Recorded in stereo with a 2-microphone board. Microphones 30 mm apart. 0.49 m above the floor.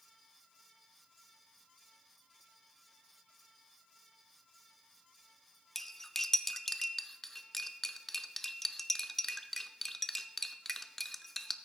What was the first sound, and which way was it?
Cutlery clinking, 10° left (ahead or behind).